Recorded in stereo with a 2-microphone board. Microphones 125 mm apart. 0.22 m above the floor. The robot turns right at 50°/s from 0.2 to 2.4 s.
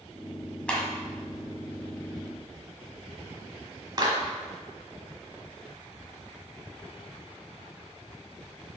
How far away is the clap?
About 1.4 m.